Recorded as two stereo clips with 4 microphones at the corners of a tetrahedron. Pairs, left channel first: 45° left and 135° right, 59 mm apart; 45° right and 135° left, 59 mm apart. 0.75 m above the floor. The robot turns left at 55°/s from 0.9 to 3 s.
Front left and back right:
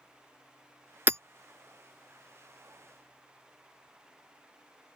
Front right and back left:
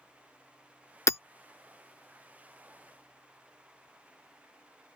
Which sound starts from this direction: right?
Hammering, at 1.1 s.